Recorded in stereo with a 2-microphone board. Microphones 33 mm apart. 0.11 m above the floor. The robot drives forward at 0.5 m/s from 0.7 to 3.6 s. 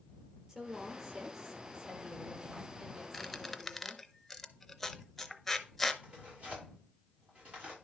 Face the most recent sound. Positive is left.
turn(degrees=-30)  # may be behind; listen again after turning